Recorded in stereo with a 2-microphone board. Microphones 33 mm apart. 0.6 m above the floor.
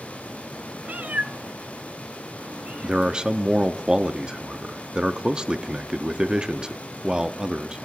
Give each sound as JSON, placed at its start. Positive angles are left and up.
{"t": 0.8, "sound": "a cat meowing", "side_deg": -55, "distance_m": 0.7}
{"t": 2.8, "sound": "a man speaking", "side_deg": -25, "distance_m": 0.7}